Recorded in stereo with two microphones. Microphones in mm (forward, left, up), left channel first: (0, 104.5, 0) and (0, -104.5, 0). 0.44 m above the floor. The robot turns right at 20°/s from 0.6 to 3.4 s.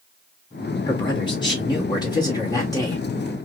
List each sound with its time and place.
0.9 s a man speaking: 20° left (ahead or behind), 1.3 m; by 3.0 s 15° left (ahead or behind), 1.3 m